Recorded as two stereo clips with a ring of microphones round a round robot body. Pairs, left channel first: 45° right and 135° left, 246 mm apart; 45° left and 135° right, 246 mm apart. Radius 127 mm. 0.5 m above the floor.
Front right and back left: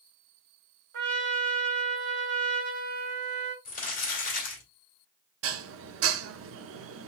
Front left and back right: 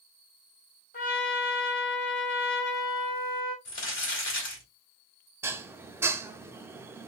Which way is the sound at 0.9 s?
95° left.